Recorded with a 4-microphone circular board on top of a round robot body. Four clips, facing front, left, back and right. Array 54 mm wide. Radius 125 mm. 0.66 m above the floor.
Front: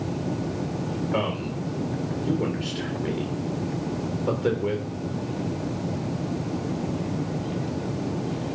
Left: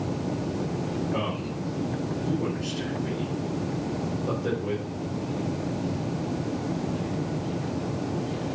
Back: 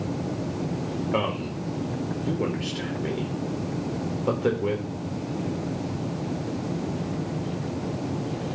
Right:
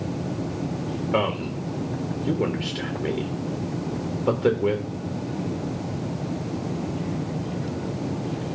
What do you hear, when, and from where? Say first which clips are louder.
1.1 s a man speaking: right 5 dB, back 1 dB; 110° right, 1.5 m